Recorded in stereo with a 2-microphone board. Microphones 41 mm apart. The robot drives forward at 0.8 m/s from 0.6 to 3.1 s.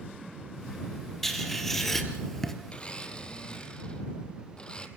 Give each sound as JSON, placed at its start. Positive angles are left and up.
{"t": 1.2, "sound": "writing", "side_deg": 5, "distance_m": 3.0}
{"t": 2.7, "sound": "a blender", "side_deg": 30, "distance_m": 1.3}